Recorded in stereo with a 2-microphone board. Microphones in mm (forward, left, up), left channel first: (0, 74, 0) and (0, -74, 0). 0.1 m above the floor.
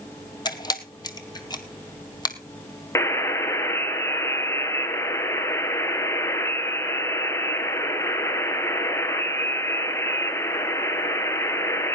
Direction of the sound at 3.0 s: 20° left (ahead or behind).